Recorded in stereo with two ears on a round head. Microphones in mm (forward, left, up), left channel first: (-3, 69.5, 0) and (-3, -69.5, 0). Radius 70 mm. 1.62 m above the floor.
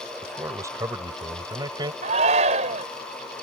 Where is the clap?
I don't hear a clap.